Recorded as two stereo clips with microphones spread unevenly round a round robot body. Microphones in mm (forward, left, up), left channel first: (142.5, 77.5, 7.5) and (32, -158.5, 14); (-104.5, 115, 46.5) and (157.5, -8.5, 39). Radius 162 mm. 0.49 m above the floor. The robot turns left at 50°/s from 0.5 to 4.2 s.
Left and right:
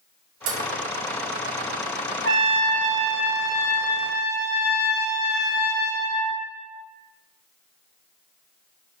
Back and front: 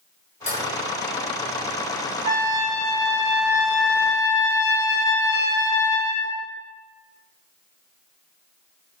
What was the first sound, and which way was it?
Dishes clattering, 135° right.